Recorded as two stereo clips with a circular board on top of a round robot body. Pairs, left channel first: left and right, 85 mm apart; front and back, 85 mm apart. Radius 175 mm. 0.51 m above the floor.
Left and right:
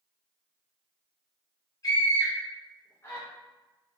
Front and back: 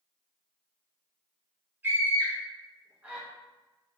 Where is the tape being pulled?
I don't hear tape being pulled.